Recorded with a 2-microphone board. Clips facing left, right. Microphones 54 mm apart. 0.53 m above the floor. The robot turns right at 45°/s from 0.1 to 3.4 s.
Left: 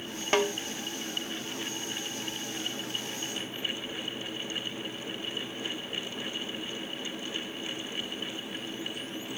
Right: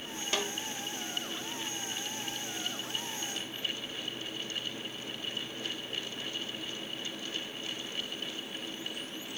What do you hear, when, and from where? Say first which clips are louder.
0.3 s a snare drum: left 9 dB; 40° left (ahead or behind), 0.8 m; by 0.5 s 50° left (ahead or behind), 0.8 m